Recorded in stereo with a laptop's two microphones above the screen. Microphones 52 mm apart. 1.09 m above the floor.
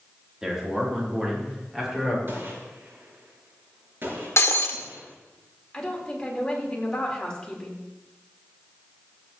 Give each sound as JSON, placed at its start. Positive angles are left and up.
{"t": 0.4, "sound": "a man speaking", "side_deg": -10, "distance_m": 3.0}
{"t": 2.3, "sound": "a gunshot", "side_deg": -45, "distance_m": 6.0}
{"t": 4.4, "sound": "breaking glass", "side_deg": 60, "distance_m": 1.2}
{"t": 5.7, "sound": "a woman speaking", "side_deg": 15, "distance_m": 3.5}